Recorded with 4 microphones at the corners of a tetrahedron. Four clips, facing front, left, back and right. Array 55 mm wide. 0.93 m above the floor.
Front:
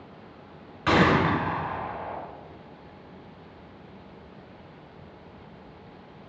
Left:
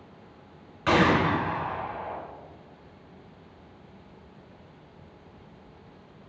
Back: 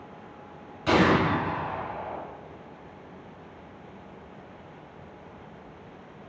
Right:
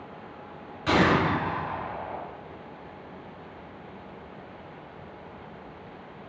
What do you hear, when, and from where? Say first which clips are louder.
0.9 s a gunshot: even, front 1 dB; 40° left, 1.7 m